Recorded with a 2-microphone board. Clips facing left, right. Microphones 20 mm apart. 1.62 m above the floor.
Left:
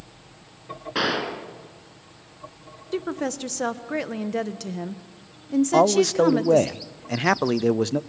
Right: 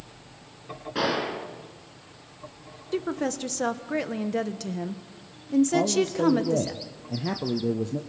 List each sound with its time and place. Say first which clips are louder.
0.9 s a gunshot: left 2 dB; 25° left (ahead or behind), 3.5 m
2.9 s a woman speaking: left 1 dB; 5° left (ahead or behind), 1.1 m
5.7 s a man speaking: left 6 dB; 60° left (ahead or behind), 0.6 m